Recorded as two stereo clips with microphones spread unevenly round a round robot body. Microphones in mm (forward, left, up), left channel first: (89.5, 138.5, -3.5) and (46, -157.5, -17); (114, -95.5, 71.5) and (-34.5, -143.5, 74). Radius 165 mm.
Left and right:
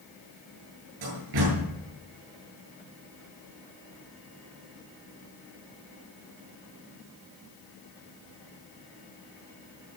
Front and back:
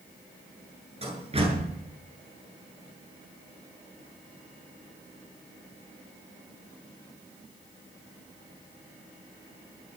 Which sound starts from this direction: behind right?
A door slam, at 1.0 s.